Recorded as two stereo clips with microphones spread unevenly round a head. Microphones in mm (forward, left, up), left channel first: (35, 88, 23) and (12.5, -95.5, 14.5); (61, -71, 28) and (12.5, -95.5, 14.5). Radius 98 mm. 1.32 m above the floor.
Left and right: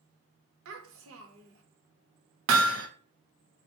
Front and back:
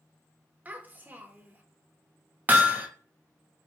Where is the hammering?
90° right, 0.9 m.